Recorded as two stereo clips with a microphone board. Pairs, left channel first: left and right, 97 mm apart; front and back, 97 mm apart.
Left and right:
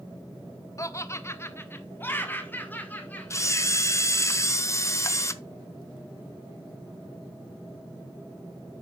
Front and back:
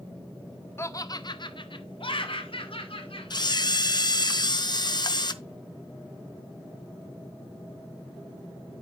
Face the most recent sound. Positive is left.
turn(degrees=35)